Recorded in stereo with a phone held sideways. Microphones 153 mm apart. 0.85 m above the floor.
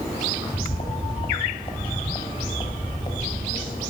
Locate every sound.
0.3 s footsteps: 30° left (ahead or behind), 9.5 m; by 3.8 s 25° left (ahead or behind), 13 m